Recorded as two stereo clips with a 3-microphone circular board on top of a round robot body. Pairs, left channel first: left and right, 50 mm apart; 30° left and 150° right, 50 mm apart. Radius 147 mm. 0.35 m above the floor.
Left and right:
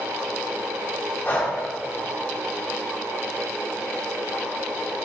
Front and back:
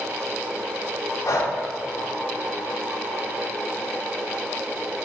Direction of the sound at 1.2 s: 35° left.